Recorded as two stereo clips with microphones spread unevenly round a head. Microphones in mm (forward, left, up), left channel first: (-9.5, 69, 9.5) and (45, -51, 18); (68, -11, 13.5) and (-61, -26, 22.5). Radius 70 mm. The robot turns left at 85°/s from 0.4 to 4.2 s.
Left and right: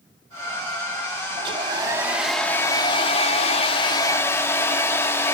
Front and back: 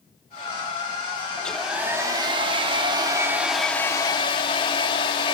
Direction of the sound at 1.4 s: 70° right.